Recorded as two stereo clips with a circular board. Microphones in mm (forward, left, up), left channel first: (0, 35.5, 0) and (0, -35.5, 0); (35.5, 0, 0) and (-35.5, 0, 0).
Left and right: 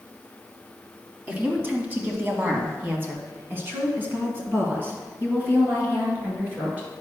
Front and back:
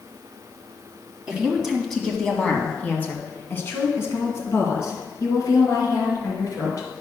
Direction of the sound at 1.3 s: 115° right.